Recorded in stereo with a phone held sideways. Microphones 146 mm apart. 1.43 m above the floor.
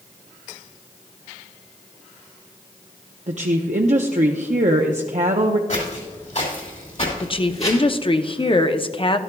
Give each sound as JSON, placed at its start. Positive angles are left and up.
{"t": 3.3, "sound": "a woman speaking", "side_deg": -55, "distance_m": 0.6}
{"t": 5.7, "sound": "footsteps", "side_deg": 60, "distance_m": 3.5}
{"t": 7.2, "sound": "a woman speaking", "side_deg": 40, "distance_m": 0.6}